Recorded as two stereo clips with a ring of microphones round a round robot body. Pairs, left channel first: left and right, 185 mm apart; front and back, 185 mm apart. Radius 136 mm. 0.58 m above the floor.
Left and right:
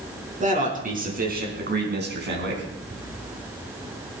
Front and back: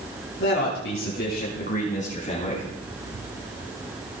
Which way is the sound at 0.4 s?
40° right.